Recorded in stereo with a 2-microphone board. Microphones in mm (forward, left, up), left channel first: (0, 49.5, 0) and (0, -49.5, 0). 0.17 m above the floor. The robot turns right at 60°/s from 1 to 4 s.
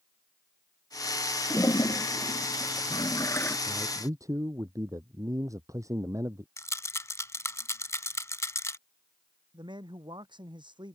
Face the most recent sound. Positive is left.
turn(degrees=-50)  # may be behind; listen again after turning